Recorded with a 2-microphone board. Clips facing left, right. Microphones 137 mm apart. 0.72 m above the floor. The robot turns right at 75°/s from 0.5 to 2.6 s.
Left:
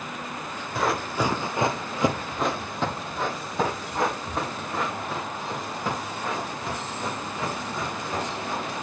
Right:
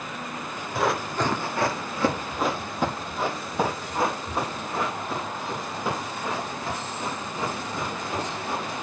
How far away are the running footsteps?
About 0.8 m.